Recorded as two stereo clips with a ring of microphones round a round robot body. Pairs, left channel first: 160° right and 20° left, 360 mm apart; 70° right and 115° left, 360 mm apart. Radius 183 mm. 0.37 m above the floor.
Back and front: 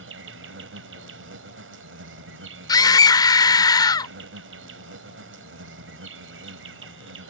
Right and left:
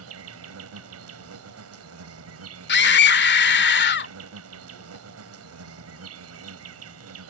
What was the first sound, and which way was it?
An insect, 70° left.